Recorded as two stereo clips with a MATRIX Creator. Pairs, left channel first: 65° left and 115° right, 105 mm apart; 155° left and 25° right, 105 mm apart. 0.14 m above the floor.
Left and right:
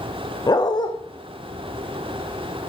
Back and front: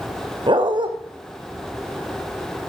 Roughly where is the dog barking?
Ahead.